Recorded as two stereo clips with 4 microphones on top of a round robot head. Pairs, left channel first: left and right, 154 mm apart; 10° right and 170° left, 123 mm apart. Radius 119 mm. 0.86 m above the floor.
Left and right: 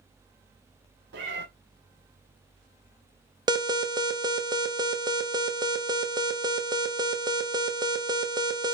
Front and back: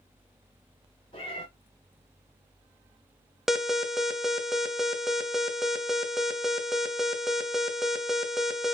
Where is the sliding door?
No sliding door in this recording.